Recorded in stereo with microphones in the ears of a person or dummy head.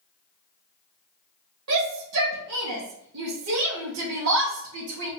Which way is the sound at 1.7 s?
85° right.